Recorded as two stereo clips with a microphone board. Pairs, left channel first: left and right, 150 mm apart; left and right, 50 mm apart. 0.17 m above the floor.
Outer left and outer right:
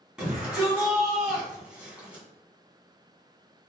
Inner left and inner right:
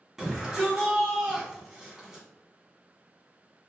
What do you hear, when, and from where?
0.2 s a shout: 5° right (ahead or behind), 1.5 m; by 2.2 s 10° right (ahead or behind), 1.5 m